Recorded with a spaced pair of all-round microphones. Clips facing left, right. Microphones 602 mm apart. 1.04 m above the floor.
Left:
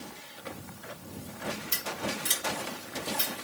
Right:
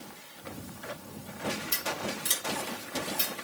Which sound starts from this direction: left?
Scissors, at 1.7 s.